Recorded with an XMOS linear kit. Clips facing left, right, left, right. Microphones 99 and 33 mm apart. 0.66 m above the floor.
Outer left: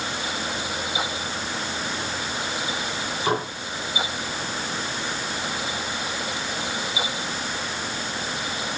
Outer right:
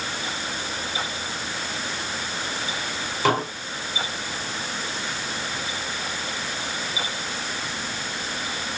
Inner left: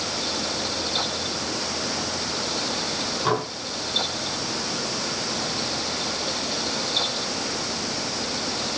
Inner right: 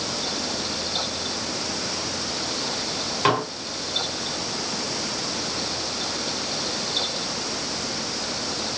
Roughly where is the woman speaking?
No woman speaking in this recording.